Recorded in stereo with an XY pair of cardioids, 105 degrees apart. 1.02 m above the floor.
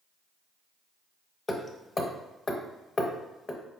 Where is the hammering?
30° left, 0.6 m.